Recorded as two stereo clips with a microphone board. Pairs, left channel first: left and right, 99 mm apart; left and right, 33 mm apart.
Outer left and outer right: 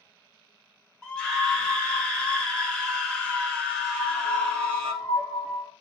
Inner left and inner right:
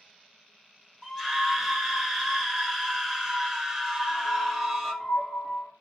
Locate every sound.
1.0 s a scream: 10° left (ahead or behind), 1.0 m
3.9 s a piano: 75° left (ahead or behind), 3 m